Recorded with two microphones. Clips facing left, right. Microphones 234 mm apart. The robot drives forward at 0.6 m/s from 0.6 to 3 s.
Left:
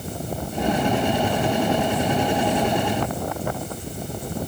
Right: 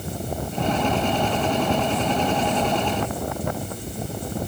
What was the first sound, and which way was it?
Only background noise.